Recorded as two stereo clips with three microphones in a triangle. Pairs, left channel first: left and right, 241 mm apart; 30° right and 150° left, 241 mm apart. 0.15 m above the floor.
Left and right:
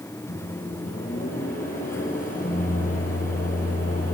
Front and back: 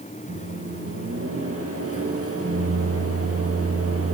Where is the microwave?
145° left, 3 m.